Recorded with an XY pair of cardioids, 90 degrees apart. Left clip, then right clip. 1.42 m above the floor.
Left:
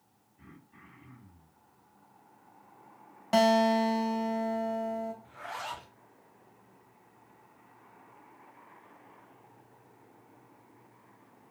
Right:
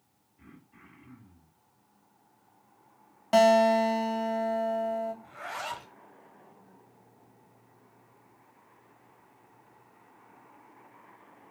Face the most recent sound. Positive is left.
turn(degrees=-40)